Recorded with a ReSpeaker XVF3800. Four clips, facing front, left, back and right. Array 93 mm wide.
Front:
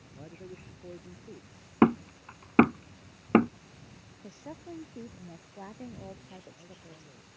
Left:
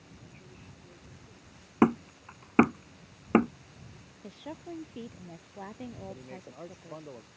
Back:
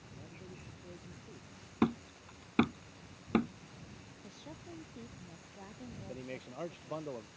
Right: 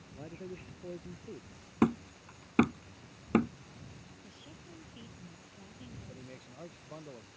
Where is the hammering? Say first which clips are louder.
Left 5 dB, front 9 dB; 35° left.